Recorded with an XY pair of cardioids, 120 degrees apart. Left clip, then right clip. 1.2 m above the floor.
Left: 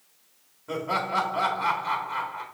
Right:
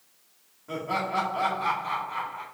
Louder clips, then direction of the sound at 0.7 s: Left 2 dB; 25° left.